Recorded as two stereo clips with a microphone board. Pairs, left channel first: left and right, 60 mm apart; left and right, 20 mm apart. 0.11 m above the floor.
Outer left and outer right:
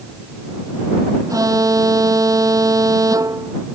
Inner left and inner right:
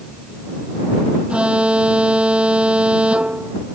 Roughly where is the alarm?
Right.